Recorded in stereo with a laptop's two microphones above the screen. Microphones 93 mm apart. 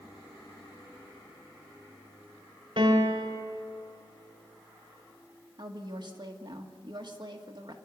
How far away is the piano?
About 2 m.